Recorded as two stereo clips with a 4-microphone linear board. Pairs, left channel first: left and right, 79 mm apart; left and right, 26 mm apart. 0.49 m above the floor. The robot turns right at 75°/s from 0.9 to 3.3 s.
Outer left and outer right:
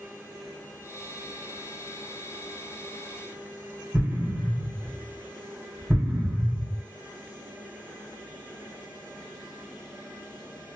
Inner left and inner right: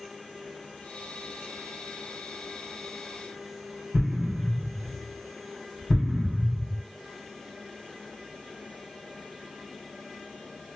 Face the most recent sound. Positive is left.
turn(degrees=-25)  # may be behind; listen again after turning